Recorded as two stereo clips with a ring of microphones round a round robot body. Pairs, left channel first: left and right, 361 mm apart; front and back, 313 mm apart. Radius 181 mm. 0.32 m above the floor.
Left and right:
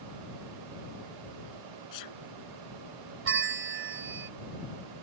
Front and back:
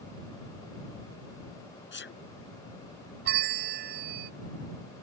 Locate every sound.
1.9 s a sneeze: 55° left
3.2 s a bell: 135° right